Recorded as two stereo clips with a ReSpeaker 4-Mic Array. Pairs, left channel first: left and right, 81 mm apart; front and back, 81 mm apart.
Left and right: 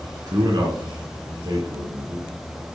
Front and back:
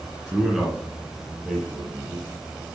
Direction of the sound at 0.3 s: 100° right.